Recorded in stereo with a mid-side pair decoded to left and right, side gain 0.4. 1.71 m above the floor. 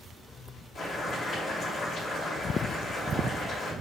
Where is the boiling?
65° left, 2.5 m.